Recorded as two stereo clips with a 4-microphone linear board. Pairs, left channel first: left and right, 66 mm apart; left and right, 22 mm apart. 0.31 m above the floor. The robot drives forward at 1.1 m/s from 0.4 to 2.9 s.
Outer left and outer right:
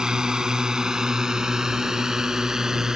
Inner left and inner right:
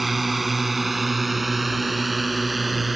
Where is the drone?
10° right (ahead or behind); by 3.0 s 5° right (ahead or behind).